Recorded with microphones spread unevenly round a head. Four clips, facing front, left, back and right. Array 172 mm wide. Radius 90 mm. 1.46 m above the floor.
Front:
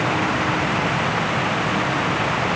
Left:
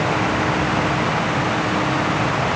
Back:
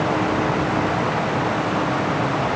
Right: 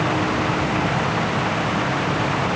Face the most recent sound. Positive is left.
No sound to turn to.